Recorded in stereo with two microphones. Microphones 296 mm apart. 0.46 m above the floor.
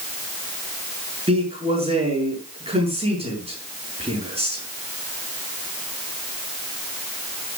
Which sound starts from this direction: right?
A man speaking, at 1.3 s.